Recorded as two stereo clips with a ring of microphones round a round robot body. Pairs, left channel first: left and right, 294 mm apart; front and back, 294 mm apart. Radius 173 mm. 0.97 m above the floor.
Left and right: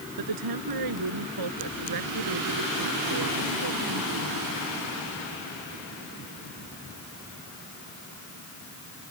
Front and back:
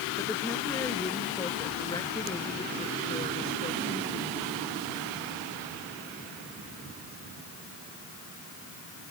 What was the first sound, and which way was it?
A woman speaking, 85° right.